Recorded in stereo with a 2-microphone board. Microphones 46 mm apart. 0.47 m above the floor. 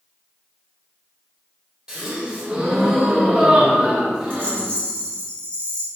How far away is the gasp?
About 1.5 m.